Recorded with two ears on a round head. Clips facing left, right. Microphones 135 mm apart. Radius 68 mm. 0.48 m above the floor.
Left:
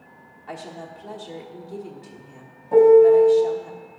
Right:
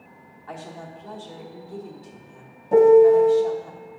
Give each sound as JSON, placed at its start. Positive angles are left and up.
{"t": 0.5, "sound": "a woman speaking", "side_deg": 15, "distance_m": 1.3}
{"t": 2.7, "sound": "a piano", "side_deg": -25, "distance_m": 0.9}